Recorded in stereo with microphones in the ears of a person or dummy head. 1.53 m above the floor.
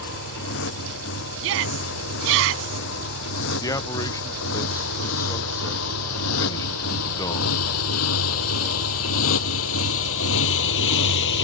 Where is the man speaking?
20° left (ahead or behind).